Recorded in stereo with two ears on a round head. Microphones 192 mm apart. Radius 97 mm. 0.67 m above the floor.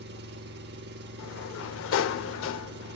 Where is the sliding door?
65° left (ahead or behind), 0.5 m.